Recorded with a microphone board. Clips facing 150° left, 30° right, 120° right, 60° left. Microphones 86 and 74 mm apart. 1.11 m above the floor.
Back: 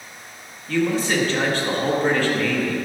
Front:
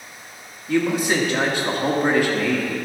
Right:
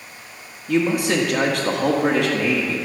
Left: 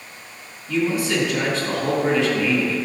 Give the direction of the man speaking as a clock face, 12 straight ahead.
3 o'clock.